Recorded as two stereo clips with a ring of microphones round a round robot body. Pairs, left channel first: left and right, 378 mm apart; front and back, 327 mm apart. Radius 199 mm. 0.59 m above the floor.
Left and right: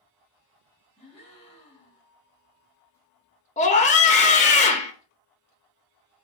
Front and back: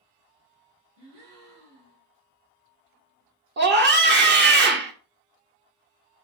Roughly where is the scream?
Behind left.